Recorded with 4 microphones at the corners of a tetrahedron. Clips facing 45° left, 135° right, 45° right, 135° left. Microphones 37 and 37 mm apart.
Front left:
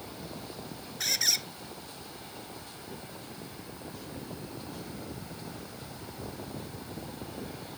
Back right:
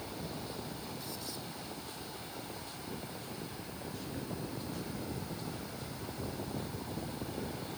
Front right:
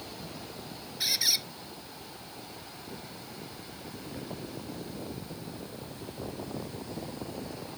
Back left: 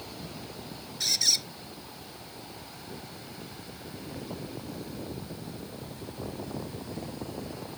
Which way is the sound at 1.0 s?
35° left.